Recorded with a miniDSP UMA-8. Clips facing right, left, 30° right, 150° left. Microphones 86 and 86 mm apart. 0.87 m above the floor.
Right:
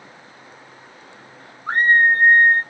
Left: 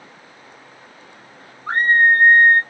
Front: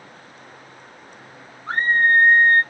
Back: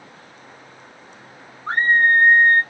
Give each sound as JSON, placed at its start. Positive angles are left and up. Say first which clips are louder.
{"t": 1.7, "sound": "a scream", "louder": "left 1 dB, back 1 dB", "azimuth_deg": 180, "distance_m": 2.0}